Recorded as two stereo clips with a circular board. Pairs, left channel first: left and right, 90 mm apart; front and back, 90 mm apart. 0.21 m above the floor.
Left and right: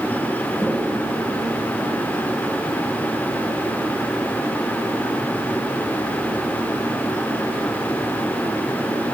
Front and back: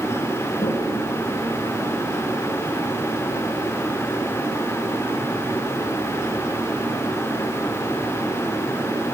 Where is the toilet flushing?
5° left, 7 m.